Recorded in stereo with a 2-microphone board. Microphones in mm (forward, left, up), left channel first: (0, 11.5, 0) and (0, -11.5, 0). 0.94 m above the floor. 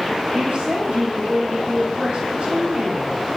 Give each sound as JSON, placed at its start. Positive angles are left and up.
{"t": 0.3, "sound": "a woman speaking", "side_deg": -65, "distance_m": 5.0}